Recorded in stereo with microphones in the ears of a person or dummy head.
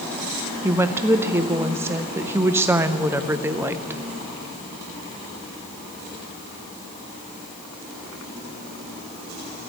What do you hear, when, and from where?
0.6 s a woman speaking: 10° right (ahead or behind), 0.6 m